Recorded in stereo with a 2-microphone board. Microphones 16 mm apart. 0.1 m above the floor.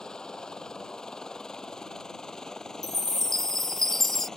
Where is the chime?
25° left (ahead or behind).